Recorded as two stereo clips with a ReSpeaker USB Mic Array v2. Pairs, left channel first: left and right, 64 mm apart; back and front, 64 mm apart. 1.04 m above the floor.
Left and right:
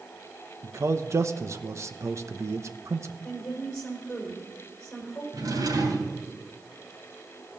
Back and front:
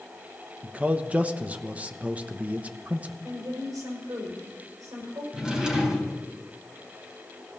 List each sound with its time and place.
0.6 s a man speaking: 60° right, 0.9 m
3.2 s a woman speaking: 15° left, 5 m
5.3 s a drawer: 75° right, 3 m